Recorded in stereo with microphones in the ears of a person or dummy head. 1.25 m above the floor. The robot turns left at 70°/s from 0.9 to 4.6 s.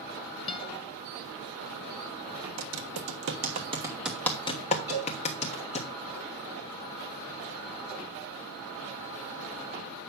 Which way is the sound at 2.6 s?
65° right (ahead or behind).